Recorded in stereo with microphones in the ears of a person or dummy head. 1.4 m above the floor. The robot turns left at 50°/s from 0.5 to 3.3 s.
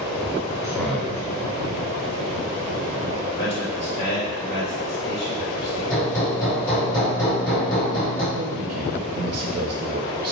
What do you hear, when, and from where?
0.6 s a man speaking: 10° right (ahead or behind), 0.7 m; by 1.2 s 15° left (ahead or behind), 0.7 m
3.3 s a man speaking: 30° left (ahead or behind), 1.9 m
5.9 s hammering: 15° left (ahead or behind), 2.0 m
8.3 s a man speaking: 40° right (ahead or behind), 0.5 m